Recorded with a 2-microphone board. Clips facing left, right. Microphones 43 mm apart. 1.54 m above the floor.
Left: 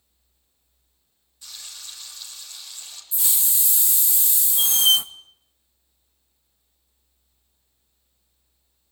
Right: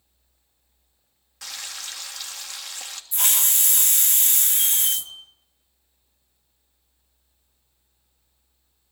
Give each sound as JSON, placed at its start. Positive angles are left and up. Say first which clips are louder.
{"t": 1.4, "sound": "frying", "louder": "right 6 dB", "side_deg": -80, "distance_m": 3.0}
{"t": 3.1, "sound": "a hiss", "louder": "right 5 dB", "side_deg": -55, "distance_m": 0.9}
{"t": 4.6, "sound": "a squeak", "louder": "left 13 dB", "side_deg": 65, "distance_m": 1.5}